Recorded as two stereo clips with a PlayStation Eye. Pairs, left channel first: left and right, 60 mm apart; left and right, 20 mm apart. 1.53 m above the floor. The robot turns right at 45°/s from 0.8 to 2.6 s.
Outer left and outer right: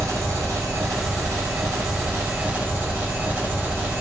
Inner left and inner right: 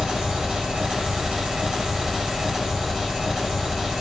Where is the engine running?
115° right, 0.8 m; by 4.0 s 35° right, 0.8 m.